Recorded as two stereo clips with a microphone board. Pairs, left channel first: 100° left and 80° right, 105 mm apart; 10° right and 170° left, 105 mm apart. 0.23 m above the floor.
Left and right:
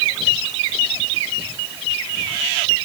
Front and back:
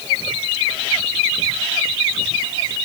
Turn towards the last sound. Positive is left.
No sound to turn to.